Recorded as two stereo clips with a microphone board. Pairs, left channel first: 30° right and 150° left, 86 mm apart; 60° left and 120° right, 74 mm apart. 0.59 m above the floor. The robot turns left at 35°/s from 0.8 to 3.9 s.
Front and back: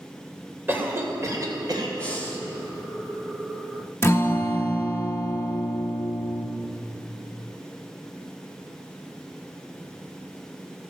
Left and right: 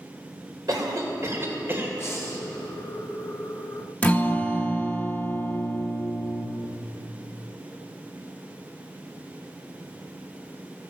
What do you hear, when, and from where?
0.7 s a cough: 145° right, 2.5 m; by 1.9 s 175° left, 2.5 m
2.0 s breathing: 35° left, 1.4 m; by 2.4 s 20° left, 1.4 m
4.0 s a guitar: 5° left, 0.7 m